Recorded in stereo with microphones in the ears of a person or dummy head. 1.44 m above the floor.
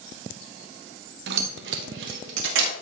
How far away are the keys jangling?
About 0.9 m.